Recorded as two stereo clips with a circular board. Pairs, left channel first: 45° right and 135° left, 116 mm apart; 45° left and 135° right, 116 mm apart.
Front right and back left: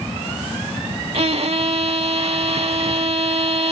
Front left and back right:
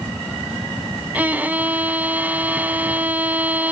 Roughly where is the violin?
Behind left.